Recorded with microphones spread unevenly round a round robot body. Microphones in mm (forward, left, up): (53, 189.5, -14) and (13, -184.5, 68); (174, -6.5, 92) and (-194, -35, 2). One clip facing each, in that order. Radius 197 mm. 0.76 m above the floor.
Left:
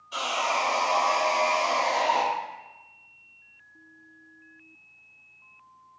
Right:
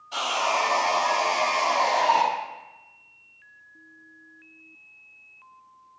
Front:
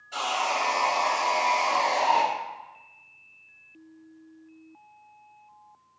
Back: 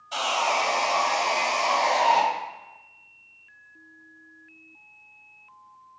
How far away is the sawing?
About 1.0 m.